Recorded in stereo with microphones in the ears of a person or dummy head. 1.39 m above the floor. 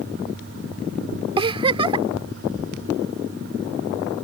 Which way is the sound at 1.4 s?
25° right (ahead or behind).